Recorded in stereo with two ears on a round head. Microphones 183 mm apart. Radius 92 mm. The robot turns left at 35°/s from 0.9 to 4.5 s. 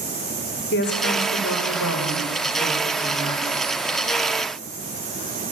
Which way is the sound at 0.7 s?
125° left.